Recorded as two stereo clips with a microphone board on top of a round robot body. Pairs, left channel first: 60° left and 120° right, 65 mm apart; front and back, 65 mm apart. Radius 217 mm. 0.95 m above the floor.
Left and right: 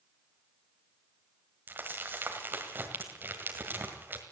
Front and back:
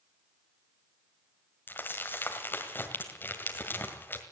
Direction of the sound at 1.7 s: 60° right.